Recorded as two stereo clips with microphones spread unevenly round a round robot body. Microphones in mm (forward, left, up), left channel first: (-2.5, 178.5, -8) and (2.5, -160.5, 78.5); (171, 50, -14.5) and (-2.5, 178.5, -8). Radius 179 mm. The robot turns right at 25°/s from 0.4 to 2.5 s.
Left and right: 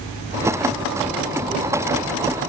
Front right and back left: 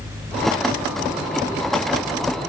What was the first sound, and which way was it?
Only background noise.